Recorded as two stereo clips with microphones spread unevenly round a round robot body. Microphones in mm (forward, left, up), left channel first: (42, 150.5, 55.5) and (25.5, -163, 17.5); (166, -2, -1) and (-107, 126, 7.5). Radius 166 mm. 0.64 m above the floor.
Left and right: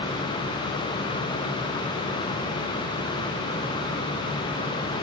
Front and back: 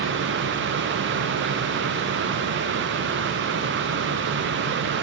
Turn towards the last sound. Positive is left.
No sound to turn to.